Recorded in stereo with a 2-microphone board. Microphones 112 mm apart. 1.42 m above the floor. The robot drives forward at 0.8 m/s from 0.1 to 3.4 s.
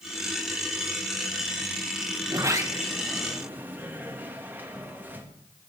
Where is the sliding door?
30° right (ahead or behind), 1.0 m; by 5.3 s 15° right (ahead or behind), 1.9 m.